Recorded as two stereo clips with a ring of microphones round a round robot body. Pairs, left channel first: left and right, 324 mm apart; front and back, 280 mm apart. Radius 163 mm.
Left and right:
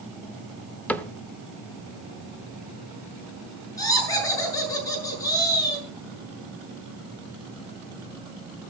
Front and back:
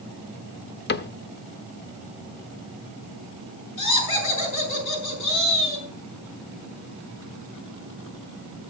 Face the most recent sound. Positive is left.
turn(degrees=10)